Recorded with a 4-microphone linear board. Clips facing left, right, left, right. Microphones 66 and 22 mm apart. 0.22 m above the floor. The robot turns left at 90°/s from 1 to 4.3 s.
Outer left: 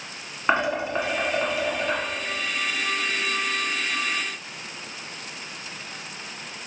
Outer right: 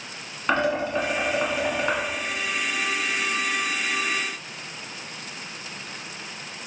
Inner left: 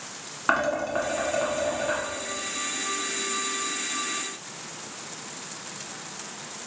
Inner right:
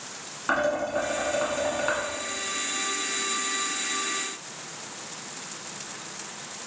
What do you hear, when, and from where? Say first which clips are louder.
0.5 s dishes clattering: even, inner left 1 dB; 20° left (ahead or behind), 1.5 m; by 2.0 s 55° right (ahead or behind), 1.5 m